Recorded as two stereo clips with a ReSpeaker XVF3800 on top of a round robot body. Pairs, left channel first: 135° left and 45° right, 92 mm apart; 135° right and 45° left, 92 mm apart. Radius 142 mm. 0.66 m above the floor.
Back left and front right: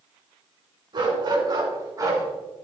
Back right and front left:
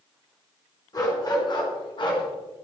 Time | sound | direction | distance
0.9 | a dog barking | 85° right | 4 m